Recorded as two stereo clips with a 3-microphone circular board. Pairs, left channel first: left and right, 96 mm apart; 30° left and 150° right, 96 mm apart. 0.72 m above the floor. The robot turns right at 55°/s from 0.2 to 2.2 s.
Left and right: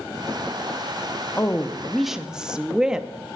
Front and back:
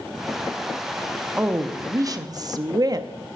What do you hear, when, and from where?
1.4 s a woman speaking: 145° left, 0.7 m; by 3.1 s 170° right, 0.7 m